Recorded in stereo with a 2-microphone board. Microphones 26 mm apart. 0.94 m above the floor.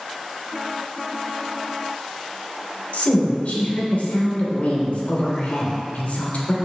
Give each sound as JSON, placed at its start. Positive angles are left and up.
{"t": 2.9, "sound": "a woman speaking", "side_deg": 80, "distance_m": 2.5}